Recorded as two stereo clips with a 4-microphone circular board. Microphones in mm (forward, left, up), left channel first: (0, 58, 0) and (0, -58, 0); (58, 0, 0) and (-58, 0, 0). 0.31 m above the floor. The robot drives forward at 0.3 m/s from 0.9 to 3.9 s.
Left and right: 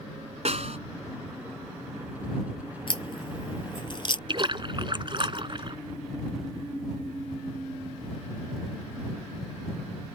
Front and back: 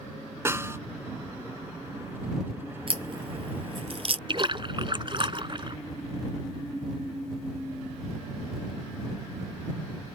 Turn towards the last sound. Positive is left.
turn(degrees=-135)